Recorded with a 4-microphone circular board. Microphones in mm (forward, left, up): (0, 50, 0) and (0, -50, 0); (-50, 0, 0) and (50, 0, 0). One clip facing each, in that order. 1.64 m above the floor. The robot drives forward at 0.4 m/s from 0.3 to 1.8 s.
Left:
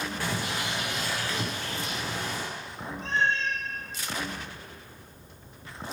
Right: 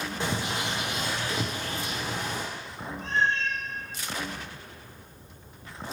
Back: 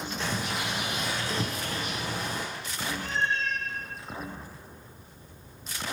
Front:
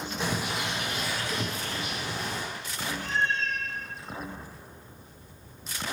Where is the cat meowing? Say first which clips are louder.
Even, front 1 dB; 110° left, 1.1 m.